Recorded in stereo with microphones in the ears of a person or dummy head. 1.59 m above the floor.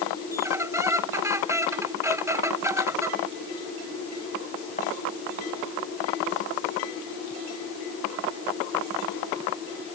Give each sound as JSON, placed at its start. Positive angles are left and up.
{"t": 0.3, "sound": "a squeak", "side_deg": -20}